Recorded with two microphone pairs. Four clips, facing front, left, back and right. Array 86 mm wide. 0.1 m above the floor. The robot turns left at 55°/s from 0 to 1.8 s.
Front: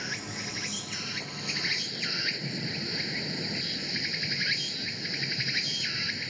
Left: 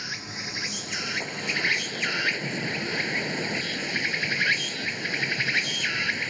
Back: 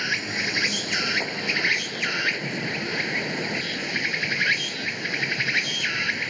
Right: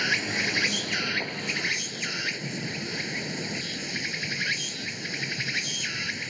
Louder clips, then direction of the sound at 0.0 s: Right 9 dB, back 9 dB; 115° right.